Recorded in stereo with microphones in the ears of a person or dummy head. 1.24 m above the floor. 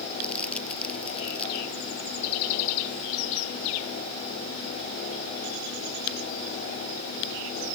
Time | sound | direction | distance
0.2 | crumpling | 10° left (ahead or behind) | ?